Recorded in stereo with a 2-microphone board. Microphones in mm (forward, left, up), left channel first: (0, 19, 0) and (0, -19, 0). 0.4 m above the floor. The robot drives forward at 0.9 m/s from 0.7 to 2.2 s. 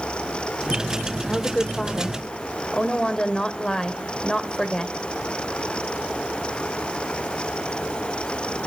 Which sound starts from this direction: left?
A woman speaking, at 1.3 s.